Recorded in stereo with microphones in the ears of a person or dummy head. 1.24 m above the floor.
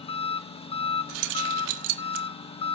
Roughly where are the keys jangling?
Right.